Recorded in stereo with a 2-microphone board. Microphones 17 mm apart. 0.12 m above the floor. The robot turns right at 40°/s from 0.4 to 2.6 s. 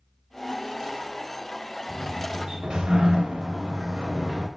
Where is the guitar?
I don't hear a guitar.